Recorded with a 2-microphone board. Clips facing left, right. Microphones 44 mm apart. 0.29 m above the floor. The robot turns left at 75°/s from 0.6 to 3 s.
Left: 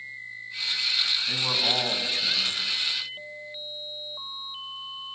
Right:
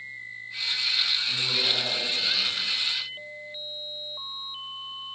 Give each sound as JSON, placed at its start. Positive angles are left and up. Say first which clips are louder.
{"t": 1.3, "sound": "a man speaking", "louder": "left 1 dB", "azimuth_deg": 120, "distance_m": 2.5}